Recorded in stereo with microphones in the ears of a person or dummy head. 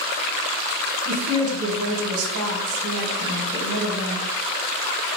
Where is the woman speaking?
90° right, 4 m.